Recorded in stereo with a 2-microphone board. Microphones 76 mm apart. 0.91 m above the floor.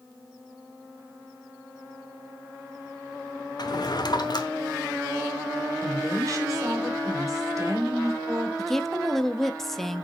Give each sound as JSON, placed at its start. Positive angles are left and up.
{"t": 3.6, "sound": "a drawer", "side_deg": 55, "distance_m": 0.8}
{"t": 5.8, "sound": "a woman speaking", "side_deg": -40, "distance_m": 2.5}
{"t": 8.6, "sound": "a woman speaking", "side_deg": 5, "distance_m": 0.7}